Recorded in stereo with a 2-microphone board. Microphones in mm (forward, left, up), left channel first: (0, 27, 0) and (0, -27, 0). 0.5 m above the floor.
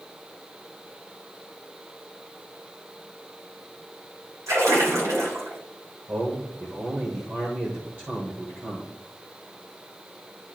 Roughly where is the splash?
Right.